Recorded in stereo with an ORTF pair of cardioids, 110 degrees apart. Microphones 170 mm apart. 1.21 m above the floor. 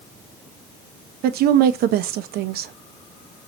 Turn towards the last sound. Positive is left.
turn(degrees=-65)